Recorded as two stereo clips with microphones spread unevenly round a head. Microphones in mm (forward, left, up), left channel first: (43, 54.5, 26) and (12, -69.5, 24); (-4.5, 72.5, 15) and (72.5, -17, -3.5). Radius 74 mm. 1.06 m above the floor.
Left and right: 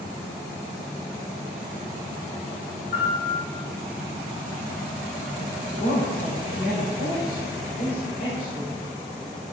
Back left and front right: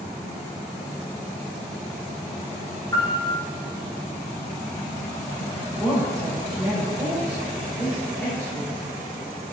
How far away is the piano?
About 5 m.